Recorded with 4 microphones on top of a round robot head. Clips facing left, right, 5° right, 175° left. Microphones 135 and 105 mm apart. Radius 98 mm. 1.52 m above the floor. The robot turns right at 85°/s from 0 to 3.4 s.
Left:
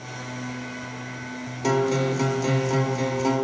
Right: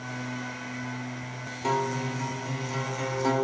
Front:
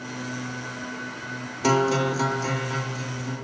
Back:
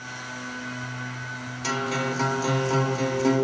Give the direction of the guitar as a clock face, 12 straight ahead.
11 o'clock.